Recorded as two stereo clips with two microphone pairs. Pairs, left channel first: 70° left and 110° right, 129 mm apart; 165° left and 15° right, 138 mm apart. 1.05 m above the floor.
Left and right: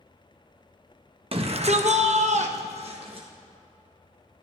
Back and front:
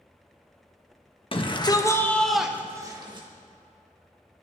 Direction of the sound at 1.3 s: 150° right.